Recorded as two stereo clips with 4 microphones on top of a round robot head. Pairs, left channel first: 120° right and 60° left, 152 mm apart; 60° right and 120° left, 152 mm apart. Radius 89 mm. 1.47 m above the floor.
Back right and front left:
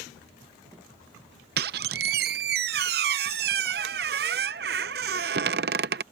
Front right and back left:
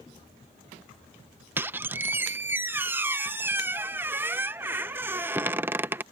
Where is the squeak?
45° left.